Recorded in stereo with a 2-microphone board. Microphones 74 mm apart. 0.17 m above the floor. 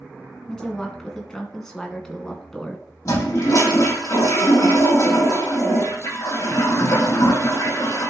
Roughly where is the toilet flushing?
Left.